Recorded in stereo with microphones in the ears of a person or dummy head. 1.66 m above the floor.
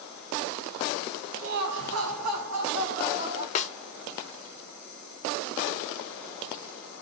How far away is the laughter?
About 0.7 m.